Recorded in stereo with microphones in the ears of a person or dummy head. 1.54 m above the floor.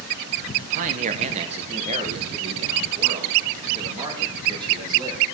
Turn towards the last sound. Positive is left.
turn(degrees=-25)  # may be behind; listen again after turning